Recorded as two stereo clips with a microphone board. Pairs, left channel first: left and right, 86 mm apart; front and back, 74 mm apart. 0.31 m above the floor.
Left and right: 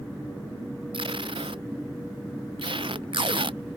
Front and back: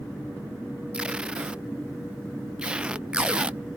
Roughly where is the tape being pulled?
Right.